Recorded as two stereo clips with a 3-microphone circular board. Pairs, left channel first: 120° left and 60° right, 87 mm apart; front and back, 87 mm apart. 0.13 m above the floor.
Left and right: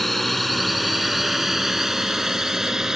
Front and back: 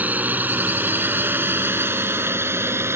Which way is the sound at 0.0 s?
155° right.